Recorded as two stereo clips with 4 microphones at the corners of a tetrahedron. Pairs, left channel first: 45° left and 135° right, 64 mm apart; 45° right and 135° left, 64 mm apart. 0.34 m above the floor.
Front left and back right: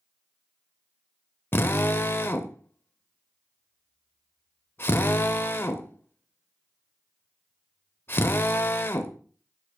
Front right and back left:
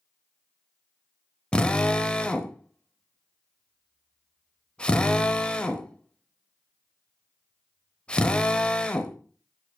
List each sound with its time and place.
1.5 s a drill: 15° left, 0.7 m